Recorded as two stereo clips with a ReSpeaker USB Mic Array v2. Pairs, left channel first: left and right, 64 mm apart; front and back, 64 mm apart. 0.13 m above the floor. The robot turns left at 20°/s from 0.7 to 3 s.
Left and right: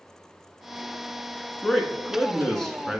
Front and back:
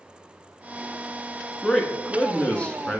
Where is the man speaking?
30° left, 1.3 m; by 3.0 s 5° left, 1.3 m.